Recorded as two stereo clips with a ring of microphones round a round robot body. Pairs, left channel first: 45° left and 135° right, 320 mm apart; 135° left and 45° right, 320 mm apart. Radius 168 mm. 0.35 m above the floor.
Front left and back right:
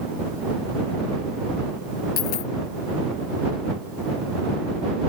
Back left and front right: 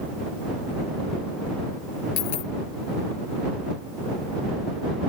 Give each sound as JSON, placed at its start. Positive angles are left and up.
{"t": 2.2, "sound": "a dropped coin", "azimuth_deg": 95}